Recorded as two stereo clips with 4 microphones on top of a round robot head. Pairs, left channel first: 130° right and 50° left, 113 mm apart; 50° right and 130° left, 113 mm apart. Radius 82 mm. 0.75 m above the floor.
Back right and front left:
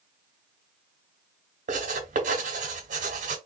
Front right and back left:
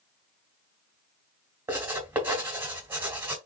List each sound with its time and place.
1.7 s writing: 60° left, 1.7 m